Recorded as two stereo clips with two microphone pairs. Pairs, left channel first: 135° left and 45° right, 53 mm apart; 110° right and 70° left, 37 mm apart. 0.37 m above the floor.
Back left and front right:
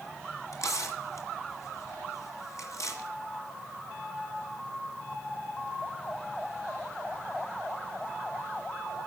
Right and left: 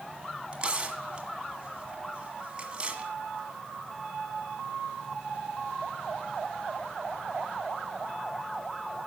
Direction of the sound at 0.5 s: 130° left.